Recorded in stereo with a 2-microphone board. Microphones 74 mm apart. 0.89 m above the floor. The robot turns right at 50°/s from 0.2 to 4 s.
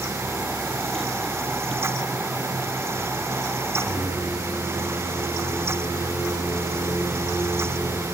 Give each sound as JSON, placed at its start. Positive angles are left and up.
{"t": 3.8, "sound": "singing", "side_deg": 80, "distance_m": 5.0}